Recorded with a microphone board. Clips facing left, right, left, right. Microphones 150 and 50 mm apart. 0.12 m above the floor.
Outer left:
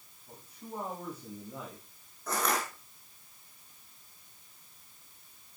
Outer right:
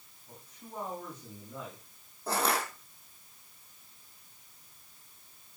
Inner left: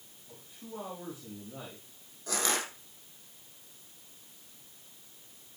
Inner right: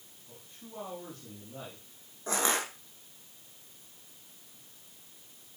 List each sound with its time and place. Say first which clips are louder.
0.3 s a man speaking: outer left 4 dB, inner left 4 dB; 10° left (ahead or behind), 6.5 m
2.3 s crushing: outer right 2 dB, inner right 2 dB; 30° right (ahead or behind), 4.5 m